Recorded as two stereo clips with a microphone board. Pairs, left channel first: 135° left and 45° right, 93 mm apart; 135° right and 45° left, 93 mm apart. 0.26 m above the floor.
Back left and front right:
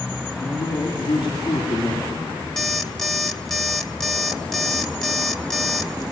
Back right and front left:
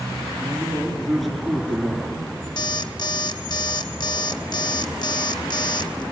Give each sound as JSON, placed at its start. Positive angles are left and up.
{"t": 0.4, "sound": "a man speaking", "azimuth_deg": 135, "distance_m": 3.5}
{"t": 2.6, "sound": "an alarm clock", "azimuth_deg": -140, "distance_m": 1.1}